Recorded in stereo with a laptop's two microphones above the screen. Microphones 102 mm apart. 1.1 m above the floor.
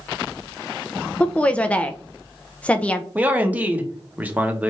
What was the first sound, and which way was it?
A woman speaking, 15° left (ahead or behind).